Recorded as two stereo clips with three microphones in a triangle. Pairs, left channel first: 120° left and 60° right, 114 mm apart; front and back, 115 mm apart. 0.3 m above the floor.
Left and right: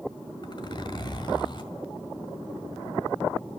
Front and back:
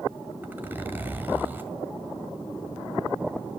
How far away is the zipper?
About 1.8 m.